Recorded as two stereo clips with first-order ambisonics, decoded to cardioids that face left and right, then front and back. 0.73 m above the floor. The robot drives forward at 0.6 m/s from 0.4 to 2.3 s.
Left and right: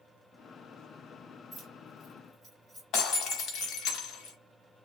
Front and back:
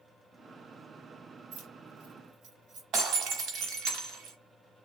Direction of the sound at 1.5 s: 175° left.